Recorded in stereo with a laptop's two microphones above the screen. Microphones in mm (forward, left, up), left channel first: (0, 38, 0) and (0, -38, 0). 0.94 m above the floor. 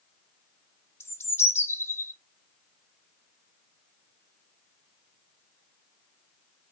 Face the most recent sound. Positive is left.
turn(degrees=30)  # may be behind; listen again after turning